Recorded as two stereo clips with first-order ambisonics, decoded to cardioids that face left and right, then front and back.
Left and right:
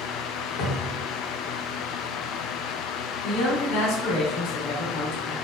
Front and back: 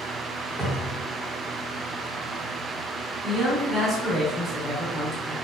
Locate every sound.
0.6 s a cupboard door: 70° left, 0.8 m
3.2 s a man speaking: 110° left, 0.9 m